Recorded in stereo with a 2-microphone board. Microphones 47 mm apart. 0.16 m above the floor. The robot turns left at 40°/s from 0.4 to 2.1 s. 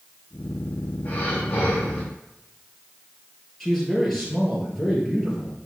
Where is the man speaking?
5° left (ahead or behind), 3 m.